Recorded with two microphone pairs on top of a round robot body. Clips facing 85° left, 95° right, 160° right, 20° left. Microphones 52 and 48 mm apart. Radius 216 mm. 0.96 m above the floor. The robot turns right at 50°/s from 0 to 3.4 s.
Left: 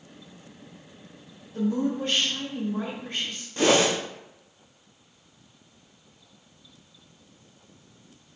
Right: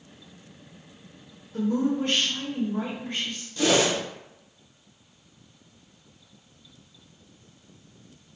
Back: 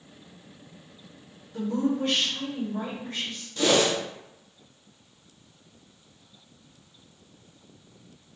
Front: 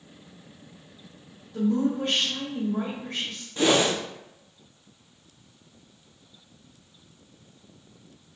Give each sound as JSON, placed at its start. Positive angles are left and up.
{"t": 1.5, "sound": "a woman speaking", "azimuth_deg": -80, "distance_m": 2.0}
{"t": 3.6, "sound": "a whoosh", "azimuth_deg": 65, "distance_m": 1.0}